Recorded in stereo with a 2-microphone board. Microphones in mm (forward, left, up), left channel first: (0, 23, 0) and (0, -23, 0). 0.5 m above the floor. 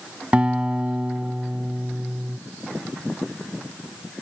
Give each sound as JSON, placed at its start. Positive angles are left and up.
{"t": 0.3, "sound": "a guitar", "side_deg": -20}